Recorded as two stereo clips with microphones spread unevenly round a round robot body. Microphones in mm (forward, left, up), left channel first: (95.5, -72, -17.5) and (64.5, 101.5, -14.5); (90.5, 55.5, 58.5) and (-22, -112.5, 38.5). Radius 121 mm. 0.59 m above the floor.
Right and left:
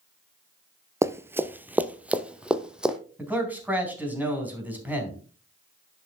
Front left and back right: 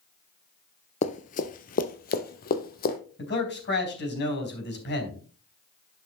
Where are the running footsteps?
35° left, 0.6 m; by 3.0 s 15° left, 1.5 m.